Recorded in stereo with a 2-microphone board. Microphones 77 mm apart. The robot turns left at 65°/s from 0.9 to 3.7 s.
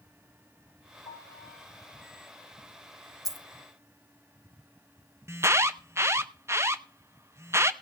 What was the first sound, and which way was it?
A piano, 80° left.